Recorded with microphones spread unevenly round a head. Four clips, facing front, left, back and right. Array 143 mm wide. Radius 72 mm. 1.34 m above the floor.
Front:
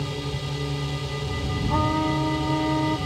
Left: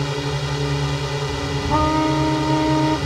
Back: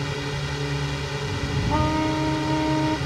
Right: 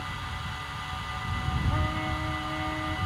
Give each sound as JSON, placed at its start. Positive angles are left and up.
{"t": 0.0, "sound": "a drone", "azimuth_deg": 90}
{"t": 1.7, "sound": "a trumpet", "azimuth_deg": 75}